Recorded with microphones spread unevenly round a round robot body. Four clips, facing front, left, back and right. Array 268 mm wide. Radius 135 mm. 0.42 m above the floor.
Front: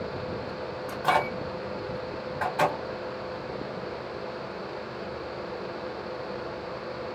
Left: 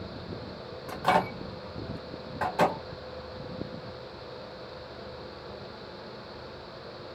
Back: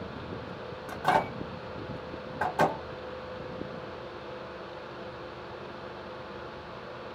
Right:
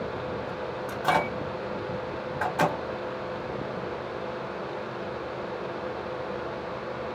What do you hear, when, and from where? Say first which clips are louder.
0.9 s a microwave: left 1 dB, front 1 dB; 155° left, 1.2 m